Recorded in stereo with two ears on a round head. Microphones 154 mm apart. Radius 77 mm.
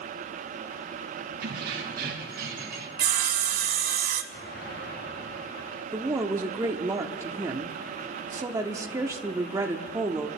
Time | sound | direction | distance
1.4 | keys jangling | 65° right (ahead or behind) | 3 m
3.0 | sawing | 55° right (ahead or behind) | 0.9 m
4.3 | an explosion | 60° left (ahead or behind) | 4.5 m
5.9 | a woman speaking | 20° right (ahead or behind) | 0.9 m